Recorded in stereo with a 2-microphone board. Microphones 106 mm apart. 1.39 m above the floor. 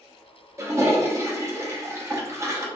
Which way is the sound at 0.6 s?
25° right (ahead or behind).